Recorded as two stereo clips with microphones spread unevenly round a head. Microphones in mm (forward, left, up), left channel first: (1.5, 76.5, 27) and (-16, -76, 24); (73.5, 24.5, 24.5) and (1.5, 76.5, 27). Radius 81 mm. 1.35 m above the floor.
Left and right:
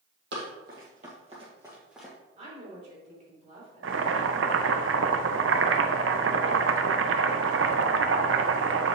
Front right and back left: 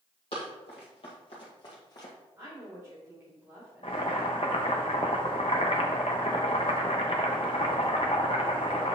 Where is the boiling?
95° right, 0.6 m.